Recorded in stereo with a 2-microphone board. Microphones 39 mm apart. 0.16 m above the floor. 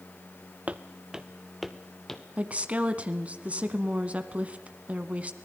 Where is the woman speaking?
35° right (ahead or behind), 1.3 m.